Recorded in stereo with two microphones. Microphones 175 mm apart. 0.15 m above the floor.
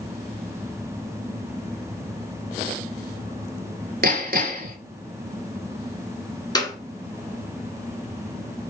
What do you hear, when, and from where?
4.0 s hammering: 60° right (ahead or behind), 0.9 m
6.5 s a clap: 20° left (ahead or behind), 1.0 m